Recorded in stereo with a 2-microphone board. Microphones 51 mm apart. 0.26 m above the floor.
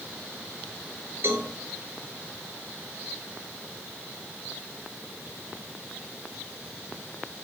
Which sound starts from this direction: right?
A cowbell, at 1.2 s.